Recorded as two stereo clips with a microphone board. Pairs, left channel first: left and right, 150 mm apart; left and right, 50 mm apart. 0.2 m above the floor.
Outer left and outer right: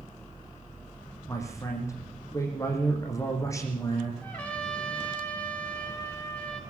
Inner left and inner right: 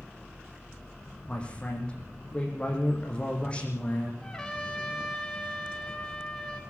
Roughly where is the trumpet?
Centre.